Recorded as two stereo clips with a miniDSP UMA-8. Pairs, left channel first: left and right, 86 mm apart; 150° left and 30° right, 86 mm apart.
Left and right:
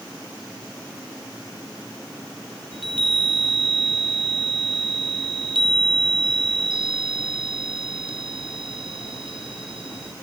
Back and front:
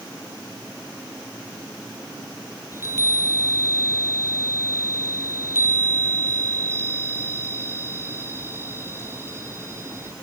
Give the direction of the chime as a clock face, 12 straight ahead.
3 o'clock.